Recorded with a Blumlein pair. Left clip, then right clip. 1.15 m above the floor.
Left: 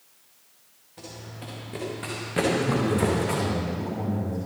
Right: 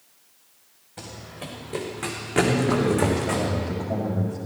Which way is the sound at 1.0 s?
40° right.